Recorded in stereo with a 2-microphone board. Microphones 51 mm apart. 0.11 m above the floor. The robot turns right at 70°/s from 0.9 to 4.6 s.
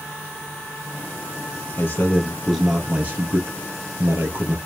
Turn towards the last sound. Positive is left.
turn(degrees=-40)